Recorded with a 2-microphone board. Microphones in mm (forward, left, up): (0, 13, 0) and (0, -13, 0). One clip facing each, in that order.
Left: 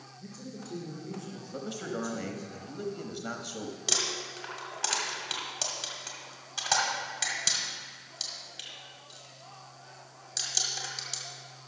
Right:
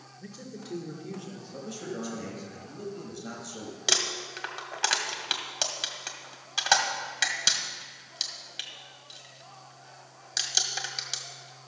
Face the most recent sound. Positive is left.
turn(degrees=-35)  # may be behind; listen again after turning